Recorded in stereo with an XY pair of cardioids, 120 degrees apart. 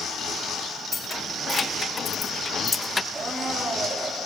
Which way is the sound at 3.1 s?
20° right.